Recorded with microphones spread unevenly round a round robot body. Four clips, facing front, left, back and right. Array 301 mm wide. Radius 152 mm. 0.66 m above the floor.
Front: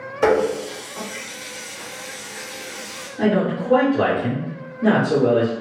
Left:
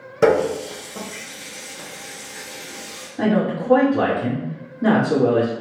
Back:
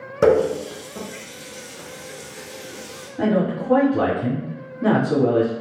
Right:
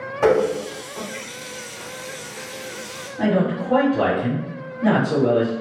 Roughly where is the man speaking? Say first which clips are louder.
Even, front 1 dB; left.